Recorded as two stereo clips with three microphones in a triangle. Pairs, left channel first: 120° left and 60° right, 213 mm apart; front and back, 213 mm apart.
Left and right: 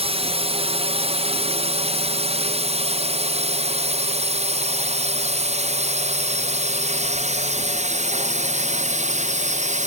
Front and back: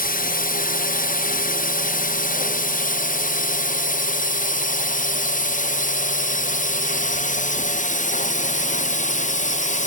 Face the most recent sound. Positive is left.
turn(degrees=-30)